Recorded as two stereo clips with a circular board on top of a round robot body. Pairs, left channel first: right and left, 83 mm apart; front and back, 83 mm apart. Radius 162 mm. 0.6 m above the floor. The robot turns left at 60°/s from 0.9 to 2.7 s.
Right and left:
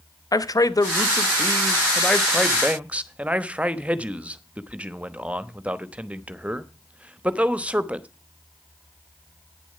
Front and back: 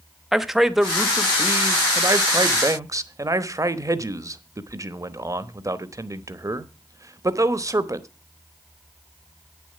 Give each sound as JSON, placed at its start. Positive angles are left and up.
{"t": 0.3, "sound": "a man speaking", "azimuth_deg": -95, "distance_m": 1.2}